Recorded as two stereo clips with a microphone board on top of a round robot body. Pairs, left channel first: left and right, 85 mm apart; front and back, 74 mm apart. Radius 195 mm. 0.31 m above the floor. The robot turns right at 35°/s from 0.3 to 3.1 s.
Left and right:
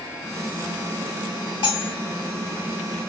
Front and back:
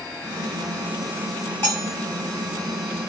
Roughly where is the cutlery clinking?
Ahead left.